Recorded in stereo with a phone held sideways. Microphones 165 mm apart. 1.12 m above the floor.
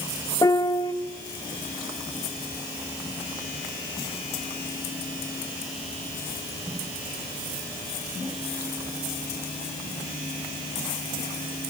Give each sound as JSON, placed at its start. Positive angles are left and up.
{"t": 0.4, "sound": "a piano", "side_deg": 20, "distance_m": 0.6}